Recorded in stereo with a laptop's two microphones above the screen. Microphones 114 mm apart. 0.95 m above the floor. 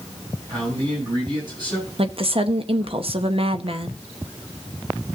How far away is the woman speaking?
About 0.9 m.